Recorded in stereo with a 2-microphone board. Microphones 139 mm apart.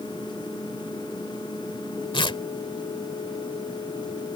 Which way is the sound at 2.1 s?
35° left (ahead or behind).